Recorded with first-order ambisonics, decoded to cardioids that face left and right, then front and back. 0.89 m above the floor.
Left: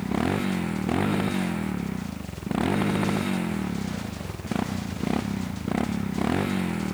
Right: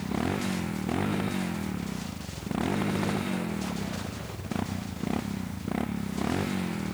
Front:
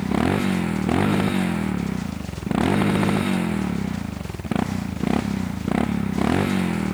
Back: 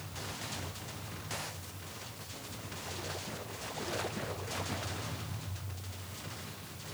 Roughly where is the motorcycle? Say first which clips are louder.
Left 4 dB, front 19 dB; ahead.